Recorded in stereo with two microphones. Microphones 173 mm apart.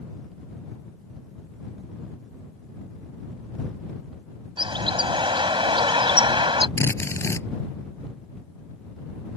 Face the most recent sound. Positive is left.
turn(degrees=15)  # may be behind; listen again after turning